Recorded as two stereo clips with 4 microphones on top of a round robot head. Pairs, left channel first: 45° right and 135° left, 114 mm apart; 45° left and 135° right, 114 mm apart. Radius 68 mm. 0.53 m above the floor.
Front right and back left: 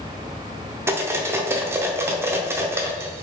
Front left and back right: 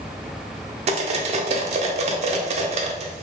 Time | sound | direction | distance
0.9 | cutlery clinking | 155° right | 0.6 m